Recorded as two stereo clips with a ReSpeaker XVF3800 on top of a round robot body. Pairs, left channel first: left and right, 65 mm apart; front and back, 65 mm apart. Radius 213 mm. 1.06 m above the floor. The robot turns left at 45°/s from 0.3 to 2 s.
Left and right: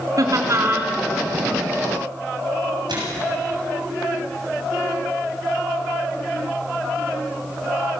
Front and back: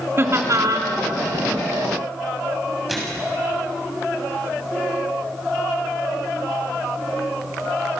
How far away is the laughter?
About 3 m.